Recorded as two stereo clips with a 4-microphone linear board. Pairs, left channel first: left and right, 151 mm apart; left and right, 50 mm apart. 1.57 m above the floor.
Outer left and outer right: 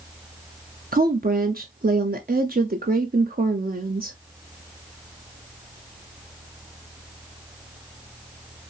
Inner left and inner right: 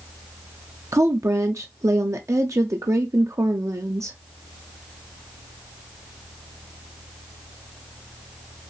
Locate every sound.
0.9 s a woman speaking: 85° right, 0.6 m